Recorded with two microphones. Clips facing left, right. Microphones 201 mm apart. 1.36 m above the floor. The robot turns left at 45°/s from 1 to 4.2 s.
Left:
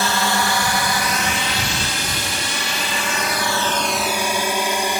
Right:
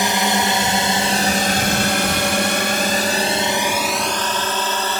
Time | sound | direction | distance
0.0 | a drone | 20° right (ahead or behind) | ?